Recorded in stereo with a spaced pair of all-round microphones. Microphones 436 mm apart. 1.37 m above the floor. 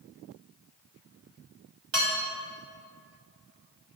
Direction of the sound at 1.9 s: 75° right (ahead or behind).